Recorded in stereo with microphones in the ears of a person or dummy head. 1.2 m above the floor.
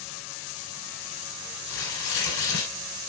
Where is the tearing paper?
70° left (ahead or behind), 3.5 m.